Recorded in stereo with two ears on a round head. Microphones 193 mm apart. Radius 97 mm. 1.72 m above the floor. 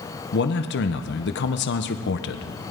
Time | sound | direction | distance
0.3 | a man speaking | 55° left (ahead or behind) | 0.9 m